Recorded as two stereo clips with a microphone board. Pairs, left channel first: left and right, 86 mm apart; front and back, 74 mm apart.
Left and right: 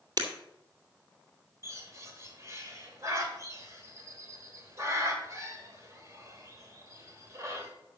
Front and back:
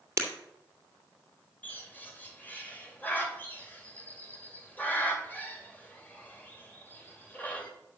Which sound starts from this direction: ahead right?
A bird, at 1.6 s.